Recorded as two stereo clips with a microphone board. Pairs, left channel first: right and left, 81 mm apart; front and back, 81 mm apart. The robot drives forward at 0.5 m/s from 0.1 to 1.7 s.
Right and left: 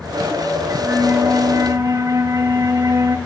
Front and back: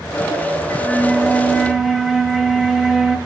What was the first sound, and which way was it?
A flute, 45° left.